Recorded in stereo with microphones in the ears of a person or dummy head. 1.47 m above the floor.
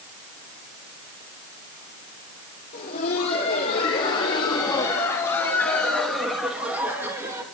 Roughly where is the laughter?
Left.